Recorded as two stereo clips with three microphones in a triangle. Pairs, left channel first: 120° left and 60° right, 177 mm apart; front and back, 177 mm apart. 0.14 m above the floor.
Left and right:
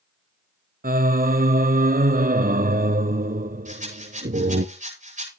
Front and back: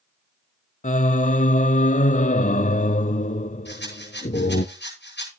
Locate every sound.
0.8 s singing: 35° right, 0.7 m
3.6 s a rattle: 15° right, 10 m